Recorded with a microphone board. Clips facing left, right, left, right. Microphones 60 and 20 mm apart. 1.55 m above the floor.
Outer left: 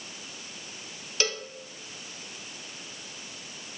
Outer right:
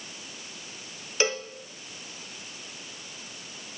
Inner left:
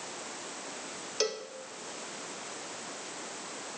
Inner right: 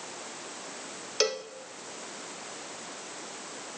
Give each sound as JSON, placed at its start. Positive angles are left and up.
{"t": 1.2, "sound": "a cowbell", "side_deg": -20, "distance_m": 0.8}